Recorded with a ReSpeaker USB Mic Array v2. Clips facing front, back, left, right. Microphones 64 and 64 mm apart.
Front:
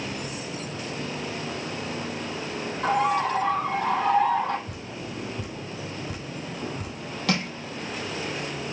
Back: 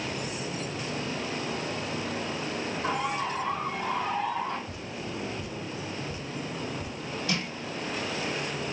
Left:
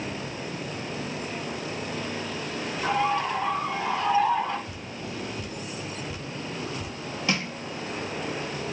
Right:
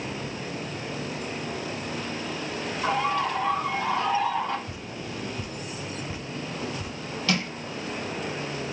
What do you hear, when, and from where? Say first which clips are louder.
2.8 s a bird: front 9 dB, even; 5° left, 4 m
4.7 s dripping: even, even; 20° right, 3.5 m
7.3 s crushing: front 6 dB, right 1 dB; 20° left, 3.5 m